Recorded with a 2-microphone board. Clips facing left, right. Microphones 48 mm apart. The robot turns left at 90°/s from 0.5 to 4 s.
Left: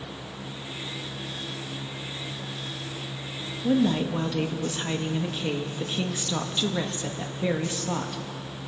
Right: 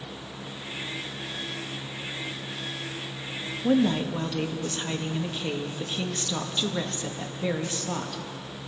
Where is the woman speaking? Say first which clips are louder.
Even; 155° right, 1.6 m; by 8.2 s 170° left, 1.6 m.